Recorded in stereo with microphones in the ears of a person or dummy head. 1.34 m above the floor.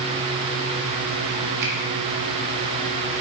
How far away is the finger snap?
About 3 m.